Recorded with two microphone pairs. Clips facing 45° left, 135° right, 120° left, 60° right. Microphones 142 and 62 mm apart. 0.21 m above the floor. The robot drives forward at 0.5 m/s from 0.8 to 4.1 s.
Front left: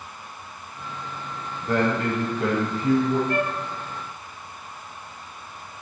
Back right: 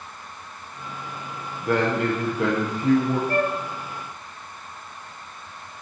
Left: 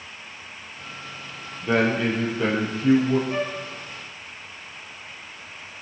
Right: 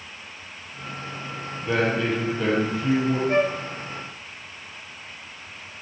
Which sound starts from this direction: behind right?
A man speaking, at 1.6 s.